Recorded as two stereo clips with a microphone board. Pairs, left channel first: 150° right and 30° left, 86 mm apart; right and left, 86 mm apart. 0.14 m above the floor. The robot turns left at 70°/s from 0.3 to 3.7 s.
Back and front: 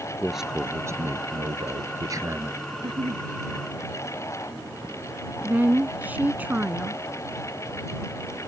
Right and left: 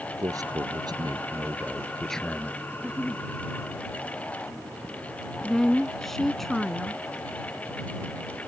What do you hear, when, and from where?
0.2 s a man speaking: 120° left; by 2.6 s 40° right
2.7 s a giggle: 25° left; by 3.2 s 15° right
5.4 s a woman speaking: 5° right